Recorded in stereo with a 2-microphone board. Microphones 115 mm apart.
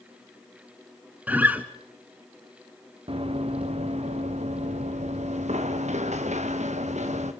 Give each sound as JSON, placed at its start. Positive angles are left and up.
{"t": 1.3, "sound": "a guitar", "side_deg": -15, "distance_m": 1.7}
{"t": 3.1, "sound": "running footsteps", "side_deg": -55, "distance_m": 2.0}